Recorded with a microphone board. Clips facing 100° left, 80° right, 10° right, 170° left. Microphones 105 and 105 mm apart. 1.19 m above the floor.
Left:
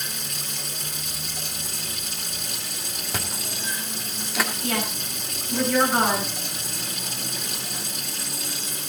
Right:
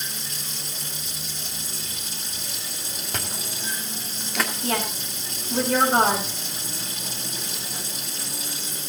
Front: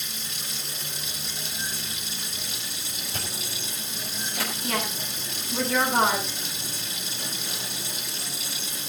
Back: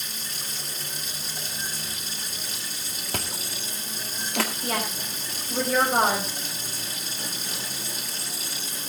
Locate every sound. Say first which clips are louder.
0.0 s running water: left 1 dB, even; 125° left, 3.5 m
3.1 s chewing: left 1 dB, back 4 dB; 170° right, 2 m
4.6 s a woman speaking: right 1 dB, even; 135° right, 5.5 m